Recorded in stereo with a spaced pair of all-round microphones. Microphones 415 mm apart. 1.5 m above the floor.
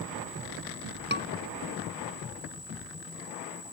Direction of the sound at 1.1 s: 25° right (ahead or behind).